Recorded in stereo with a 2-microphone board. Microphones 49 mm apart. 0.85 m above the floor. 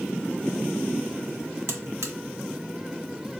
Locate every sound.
1.7 s a buzzer: 75° right (ahead or behind), 0.8 m